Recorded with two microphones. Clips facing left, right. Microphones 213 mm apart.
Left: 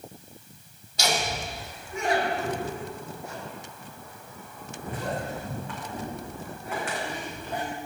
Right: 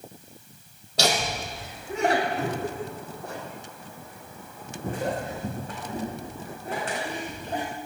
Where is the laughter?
70° right (ahead or behind), 3 m; by 7.6 s 35° right (ahead or behind), 6.5 m.